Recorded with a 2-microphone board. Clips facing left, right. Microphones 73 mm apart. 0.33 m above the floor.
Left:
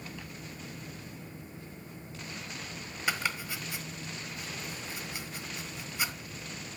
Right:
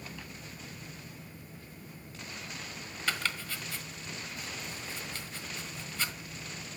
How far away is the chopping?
About 1.1 m.